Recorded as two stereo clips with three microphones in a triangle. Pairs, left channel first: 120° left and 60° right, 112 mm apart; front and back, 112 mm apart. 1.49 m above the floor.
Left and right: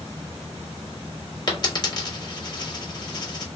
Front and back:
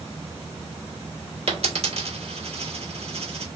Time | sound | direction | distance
1.5 | a dropped coin | 170° left | 1.7 m